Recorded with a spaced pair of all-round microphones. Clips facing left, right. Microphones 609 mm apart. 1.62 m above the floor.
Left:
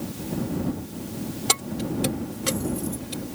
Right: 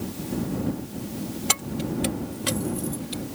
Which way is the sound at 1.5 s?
70° left (ahead or behind).